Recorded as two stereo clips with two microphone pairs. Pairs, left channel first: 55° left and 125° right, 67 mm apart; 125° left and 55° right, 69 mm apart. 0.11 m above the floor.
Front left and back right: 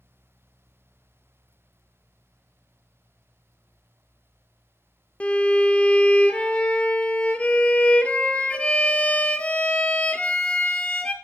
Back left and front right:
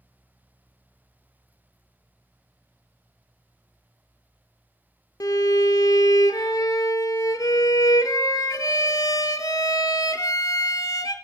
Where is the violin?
125° left, 0.6 m.